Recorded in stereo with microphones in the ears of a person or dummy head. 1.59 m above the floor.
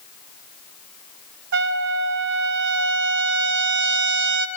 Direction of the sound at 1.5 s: 60° right (ahead or behind).